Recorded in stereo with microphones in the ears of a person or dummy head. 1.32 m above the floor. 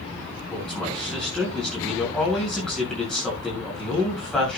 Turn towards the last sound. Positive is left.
turn(degrees=0)  # may be behind; listen again after turning